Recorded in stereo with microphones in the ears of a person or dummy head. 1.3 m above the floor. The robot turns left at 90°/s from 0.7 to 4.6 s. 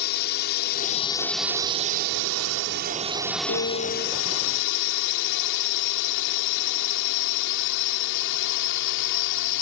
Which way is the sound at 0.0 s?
60° left.